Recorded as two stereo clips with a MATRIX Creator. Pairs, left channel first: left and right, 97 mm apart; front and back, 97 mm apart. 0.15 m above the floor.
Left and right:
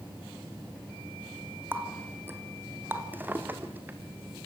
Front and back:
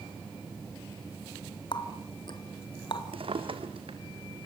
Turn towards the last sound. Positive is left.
turn(degrees=-160)